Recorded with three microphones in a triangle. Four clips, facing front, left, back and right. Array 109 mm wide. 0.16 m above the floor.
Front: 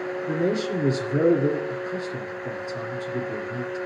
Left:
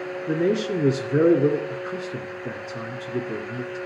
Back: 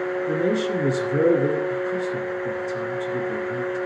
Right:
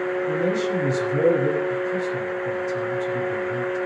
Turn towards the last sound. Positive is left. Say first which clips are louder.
# left 4 dB, back 1 dB
turn(degrees=100)